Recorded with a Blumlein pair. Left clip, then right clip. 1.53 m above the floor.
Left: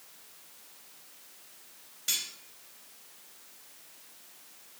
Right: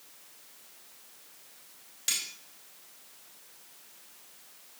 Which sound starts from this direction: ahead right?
Cutlery clinking, at 2.1 s.